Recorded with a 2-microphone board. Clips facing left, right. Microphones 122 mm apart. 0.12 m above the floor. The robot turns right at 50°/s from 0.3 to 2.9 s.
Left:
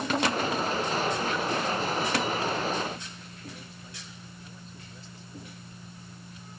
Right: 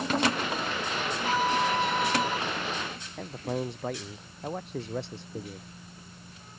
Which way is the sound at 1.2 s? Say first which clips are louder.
Right 2 dB; 95° right.